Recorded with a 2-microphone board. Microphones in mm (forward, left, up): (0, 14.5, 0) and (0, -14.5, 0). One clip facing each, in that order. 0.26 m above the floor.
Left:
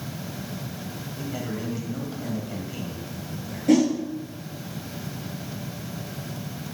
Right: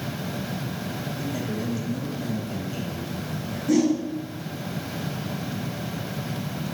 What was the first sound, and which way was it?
A man speaking, 20° left (ahead or behind).